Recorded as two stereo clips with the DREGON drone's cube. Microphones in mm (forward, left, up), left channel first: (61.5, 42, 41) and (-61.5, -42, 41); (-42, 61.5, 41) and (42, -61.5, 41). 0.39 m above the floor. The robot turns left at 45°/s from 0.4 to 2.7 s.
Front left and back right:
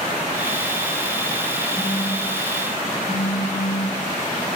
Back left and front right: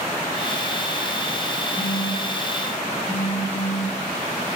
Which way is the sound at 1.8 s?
35° left.